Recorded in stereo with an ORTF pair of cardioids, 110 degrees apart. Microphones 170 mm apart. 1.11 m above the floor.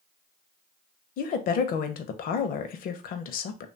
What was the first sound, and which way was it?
A woman speaking, 60° left.